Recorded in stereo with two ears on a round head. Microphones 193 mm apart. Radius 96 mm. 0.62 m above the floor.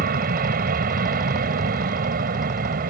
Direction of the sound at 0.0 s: 45° right (ahead or behind).